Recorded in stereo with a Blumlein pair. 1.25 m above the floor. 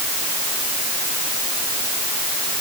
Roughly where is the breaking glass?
I don't hear breaking glass.